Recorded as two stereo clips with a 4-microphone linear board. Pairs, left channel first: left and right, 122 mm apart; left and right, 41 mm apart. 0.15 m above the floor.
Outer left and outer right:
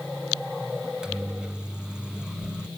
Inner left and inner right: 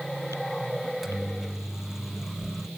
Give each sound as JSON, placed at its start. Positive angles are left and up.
{"t": 0.8, "sound": "a microwave", "side_deg": -10, "distance_m": 0.9}